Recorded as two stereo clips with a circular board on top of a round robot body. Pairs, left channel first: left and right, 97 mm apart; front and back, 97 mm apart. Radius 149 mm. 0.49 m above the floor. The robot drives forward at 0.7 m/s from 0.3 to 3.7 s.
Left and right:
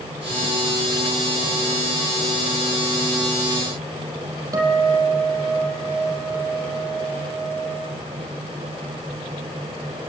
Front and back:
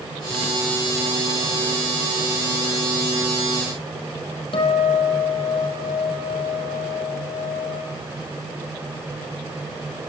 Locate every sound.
4.5 s a guitar: 35° right, 5.5 m